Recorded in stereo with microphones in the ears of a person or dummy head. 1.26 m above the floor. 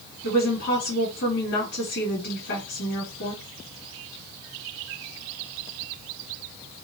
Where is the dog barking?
I don't hear a dog barking.